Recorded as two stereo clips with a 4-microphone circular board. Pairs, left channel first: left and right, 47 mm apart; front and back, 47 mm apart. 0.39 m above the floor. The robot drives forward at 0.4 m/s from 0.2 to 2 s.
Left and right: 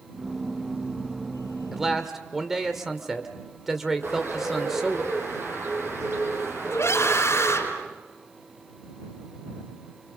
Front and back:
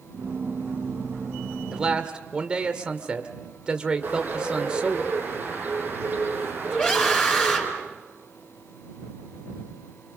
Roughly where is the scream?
Left.